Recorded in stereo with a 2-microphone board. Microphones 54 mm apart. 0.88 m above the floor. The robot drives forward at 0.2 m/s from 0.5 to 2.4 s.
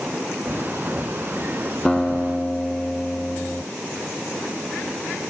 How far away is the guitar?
About 1.1 m.